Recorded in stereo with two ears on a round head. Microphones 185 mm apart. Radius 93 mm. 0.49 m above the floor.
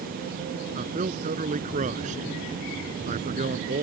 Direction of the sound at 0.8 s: 35° right (ahead or behind).